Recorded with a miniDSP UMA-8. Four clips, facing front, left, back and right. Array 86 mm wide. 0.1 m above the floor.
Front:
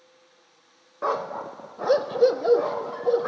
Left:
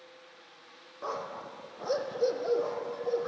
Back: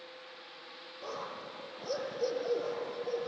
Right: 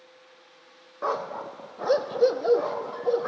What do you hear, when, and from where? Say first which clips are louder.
1.0 s a dog barking: right 8 dB, front 14 dB; 30° right, 1.2 m